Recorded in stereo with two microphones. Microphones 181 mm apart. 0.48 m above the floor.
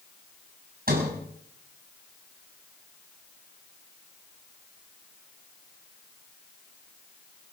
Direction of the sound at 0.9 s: 55° right (ahead or behind).